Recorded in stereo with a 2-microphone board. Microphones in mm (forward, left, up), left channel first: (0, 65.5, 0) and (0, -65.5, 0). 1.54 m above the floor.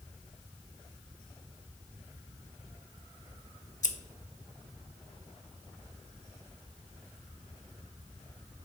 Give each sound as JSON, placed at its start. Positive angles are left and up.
{"t": 3.8, "sound": "scissors", "side_deg": 70, "distance_m": 0.6}